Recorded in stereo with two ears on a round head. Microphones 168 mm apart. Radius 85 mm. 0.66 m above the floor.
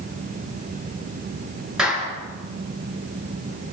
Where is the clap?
5° right (ahead or behind), 6 m.